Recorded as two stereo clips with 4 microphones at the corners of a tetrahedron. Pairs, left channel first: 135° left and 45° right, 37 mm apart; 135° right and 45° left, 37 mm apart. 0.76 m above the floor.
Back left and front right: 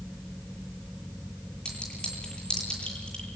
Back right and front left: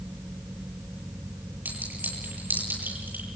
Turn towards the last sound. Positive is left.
turn(degrees=75)